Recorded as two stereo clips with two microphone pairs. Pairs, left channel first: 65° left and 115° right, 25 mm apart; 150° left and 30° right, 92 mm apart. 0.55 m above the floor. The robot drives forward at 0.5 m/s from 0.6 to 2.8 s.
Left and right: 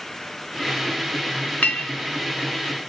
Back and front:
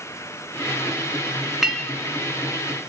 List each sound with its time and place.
1.6 s a clink: 55° left, 0.9 m; by 1.9 s 65° left, 0.8 m